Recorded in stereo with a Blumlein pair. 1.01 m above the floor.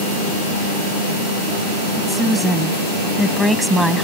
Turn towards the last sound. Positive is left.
turn(degrees=-5)